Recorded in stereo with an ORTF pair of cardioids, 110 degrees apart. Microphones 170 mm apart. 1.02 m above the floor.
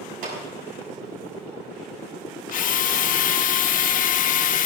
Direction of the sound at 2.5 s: 55° left.